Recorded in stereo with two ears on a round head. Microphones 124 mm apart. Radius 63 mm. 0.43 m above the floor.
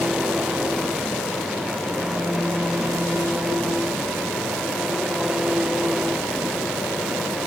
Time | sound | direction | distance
0.0 | an engine running | 5° right (ahead or behind) | ?